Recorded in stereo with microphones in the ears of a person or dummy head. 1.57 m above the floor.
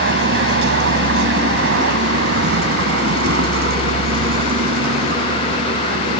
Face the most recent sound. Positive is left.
turn(degrees=-50)  # may be behind; listen again after turning